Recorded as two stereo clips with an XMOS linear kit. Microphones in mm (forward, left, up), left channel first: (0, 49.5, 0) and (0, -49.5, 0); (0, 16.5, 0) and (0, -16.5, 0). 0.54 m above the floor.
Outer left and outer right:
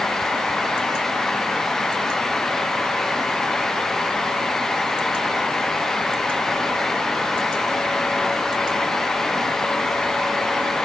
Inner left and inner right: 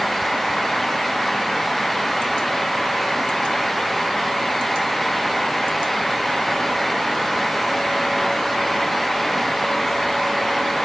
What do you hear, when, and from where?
Only background noise.